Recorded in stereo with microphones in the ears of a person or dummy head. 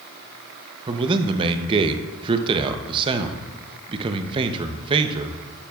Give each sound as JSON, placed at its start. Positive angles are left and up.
{"t": 0.9, "sound": "a man speaking", "side_deg": -25, "distance_m": 0.6}